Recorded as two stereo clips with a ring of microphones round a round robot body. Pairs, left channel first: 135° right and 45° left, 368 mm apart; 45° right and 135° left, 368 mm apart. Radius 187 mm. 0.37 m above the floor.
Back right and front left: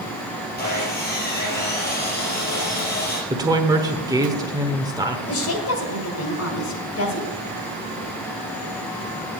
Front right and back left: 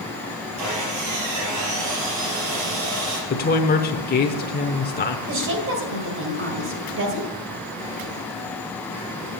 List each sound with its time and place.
0.6 s sawing: 160° left, 4 m
3.3 s a woman speaking: 25° right, 1.1 m
5.3 s a woman speaking: 175° right, 2 m